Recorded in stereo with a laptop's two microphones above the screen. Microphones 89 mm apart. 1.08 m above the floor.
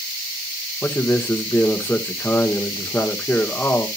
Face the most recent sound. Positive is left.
turn(degrees=25)  # may be behind; listen again after turning